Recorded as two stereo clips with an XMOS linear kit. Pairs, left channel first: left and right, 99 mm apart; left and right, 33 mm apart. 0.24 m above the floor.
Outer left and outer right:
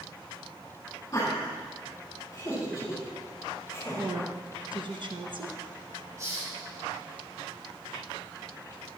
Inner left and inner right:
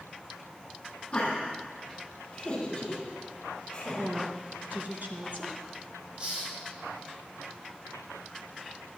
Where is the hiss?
30° right (ahead or behind), 6 m.